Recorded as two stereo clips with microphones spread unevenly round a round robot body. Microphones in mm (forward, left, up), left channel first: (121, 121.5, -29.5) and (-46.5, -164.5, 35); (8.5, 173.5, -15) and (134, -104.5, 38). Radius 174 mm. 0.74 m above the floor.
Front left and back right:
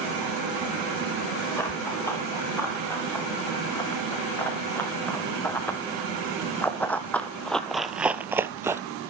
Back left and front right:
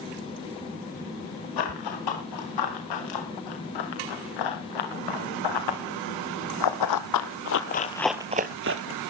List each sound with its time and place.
1.6 s running footsteps: 145° left, 7.5 m; by 8.8 s 50° right, 1.2 m